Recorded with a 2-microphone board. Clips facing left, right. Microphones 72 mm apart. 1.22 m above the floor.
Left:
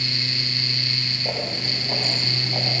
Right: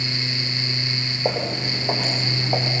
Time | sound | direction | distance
1.2 | footsteps | 70° right (ahead or behind) | 7 m